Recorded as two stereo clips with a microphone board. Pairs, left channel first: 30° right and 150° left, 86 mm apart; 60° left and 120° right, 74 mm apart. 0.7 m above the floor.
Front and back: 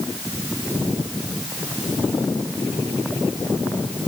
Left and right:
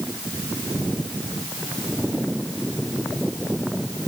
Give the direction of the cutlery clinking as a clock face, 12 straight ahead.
No cutlery clinking in this recording.